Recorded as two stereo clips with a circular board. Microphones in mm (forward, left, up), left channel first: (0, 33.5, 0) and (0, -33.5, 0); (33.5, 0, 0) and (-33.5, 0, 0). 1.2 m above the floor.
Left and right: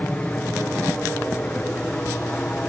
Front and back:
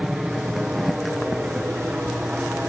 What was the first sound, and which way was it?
An aircraft, 110° left.